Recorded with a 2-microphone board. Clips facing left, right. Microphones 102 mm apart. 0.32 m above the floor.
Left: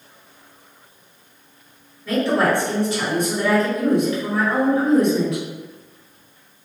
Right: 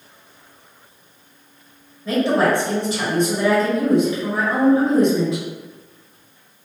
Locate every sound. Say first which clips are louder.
2.0 s a woman speaking: right 1 dB; 25° right (ahead or behind), 1.6 m